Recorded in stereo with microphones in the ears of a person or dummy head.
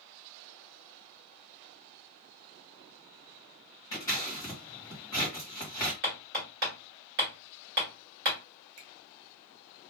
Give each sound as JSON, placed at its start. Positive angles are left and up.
{"t": 3.9, "sound": "scissors", "side_deg": 20, "distance_m": 1.4}
{"t": 6.0, "sound": "hammering", "side_deg": -45, "distance_m": 1.8}
{"t": 8.8, "sound": "a finger snap", "side_deg": -55, "distance_m": 1.5}